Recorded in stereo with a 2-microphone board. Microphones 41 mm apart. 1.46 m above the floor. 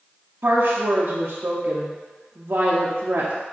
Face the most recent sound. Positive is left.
turn(degrees=-75)  # may be behind; listen again after turning